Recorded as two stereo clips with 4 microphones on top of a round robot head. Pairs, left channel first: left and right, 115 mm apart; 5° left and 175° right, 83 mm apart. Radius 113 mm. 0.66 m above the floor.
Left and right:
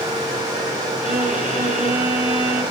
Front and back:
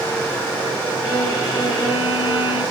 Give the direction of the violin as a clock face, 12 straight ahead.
3 o'clock.